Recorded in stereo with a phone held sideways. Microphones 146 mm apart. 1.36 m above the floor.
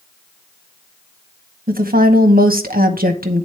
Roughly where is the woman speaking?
Right.